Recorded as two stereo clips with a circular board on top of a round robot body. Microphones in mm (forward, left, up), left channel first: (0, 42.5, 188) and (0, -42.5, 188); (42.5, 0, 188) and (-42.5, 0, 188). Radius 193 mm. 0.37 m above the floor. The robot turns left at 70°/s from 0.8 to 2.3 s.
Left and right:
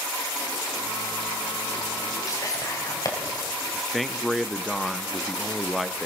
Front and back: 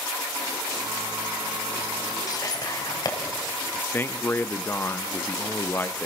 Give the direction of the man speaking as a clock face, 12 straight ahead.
12 o'clock.